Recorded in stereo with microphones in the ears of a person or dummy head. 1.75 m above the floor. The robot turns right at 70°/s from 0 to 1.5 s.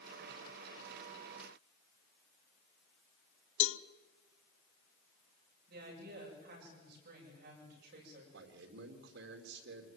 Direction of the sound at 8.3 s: 75° right (ahead or behind).